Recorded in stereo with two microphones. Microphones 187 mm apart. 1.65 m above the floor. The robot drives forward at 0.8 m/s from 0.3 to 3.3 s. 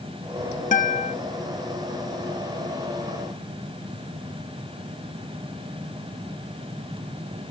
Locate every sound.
0.7 s a guitar: 40° left (ahead or behind); by 1.1 s 50° left (ahead or behind)